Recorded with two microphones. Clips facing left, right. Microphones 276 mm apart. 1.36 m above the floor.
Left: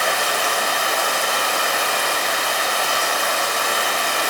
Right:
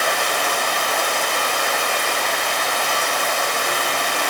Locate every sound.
0.0 s running water: 5° left (ahead or behind), 1.7 m